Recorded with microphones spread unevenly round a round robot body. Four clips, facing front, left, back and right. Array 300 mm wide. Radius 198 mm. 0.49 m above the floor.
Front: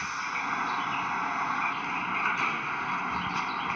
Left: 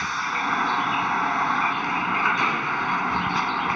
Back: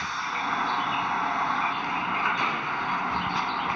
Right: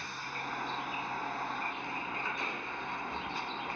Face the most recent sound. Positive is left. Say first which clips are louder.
# left 14 dB, back 3 dB
turn(degrees=95)